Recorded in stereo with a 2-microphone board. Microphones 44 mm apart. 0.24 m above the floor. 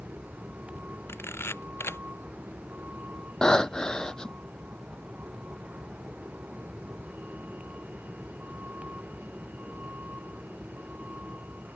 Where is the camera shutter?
60° left (ahead or behind).